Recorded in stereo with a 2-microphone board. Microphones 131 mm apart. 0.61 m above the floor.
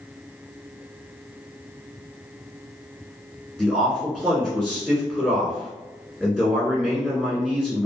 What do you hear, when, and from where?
3.6 s a man speaking: 5° right (ahead or behind), 1.3 m